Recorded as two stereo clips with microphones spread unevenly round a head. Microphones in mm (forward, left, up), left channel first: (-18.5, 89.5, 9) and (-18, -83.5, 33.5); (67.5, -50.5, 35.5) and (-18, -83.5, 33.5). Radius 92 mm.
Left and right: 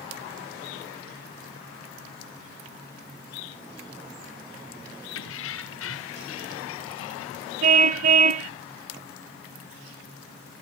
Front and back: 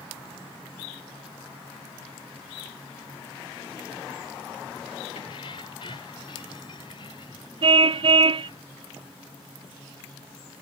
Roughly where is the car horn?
Behind right.